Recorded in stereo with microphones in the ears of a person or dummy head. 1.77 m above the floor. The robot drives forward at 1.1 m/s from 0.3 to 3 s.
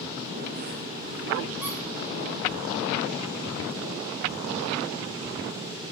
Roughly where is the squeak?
Centre.